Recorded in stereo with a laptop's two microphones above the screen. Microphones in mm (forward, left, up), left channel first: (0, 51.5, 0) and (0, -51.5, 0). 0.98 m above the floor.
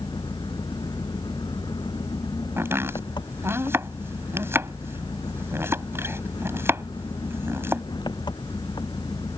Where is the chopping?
25° right (ahead or behind).